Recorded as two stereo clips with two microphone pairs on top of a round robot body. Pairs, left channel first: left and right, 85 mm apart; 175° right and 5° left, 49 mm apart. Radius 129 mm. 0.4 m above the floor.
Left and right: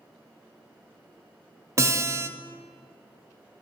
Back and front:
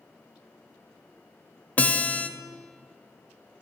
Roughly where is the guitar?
Behind right.